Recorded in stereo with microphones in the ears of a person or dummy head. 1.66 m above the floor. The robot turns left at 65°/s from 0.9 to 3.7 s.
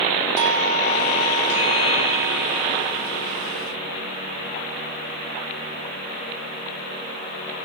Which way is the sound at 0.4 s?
65° right.